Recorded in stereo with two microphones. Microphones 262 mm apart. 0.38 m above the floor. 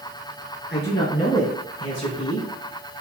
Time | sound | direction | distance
0.7 | a man speaking | 45° left (ahead or behind) | 3.5 m